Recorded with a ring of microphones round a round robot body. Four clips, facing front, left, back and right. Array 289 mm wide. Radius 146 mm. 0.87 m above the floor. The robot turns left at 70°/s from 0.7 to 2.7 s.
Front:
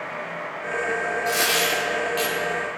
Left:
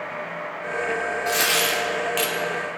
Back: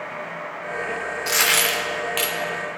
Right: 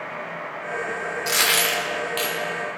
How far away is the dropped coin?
About 0.7 m.